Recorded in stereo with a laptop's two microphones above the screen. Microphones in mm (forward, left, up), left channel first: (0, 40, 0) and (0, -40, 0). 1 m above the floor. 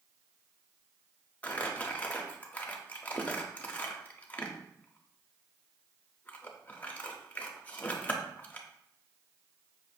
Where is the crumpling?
20° left (ahead or behind), 0.6 m.